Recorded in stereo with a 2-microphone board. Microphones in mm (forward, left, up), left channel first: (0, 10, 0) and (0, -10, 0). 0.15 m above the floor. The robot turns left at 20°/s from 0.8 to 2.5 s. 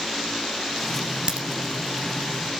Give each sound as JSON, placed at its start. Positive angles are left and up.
{"t": 1.3, "sound": "a crack", "side_deg": -55, "distance_m": 2.0}